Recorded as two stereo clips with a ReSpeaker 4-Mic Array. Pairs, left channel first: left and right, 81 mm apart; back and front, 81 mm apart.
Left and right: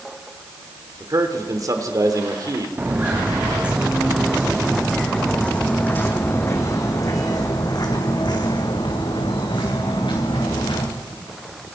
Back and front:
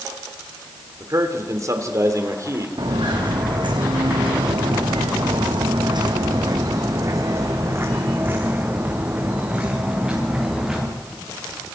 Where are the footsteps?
25° right, 4.5 m; by 10.9 s 85° left, 6 m.